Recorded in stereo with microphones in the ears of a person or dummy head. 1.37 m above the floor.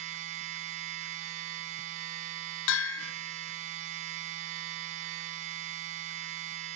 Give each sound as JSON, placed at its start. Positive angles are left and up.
{"t": 0.0, "sound": "a machine running", "side_deg": -40, "distance_m": 1.2}
{"t": 2.7, "sound": "a bell", "side_deg": 70, "distance_m": 0.9}